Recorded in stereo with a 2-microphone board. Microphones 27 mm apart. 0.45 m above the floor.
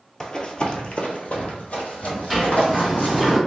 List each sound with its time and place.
0.2 s running footsteps: 30° left (ahead or behind), 0.7 m; by 3.3 s 60° left (ahead or behind), 1.7 m
2.3 s a sliding door: 5° left (ahead or behind), 1.5 m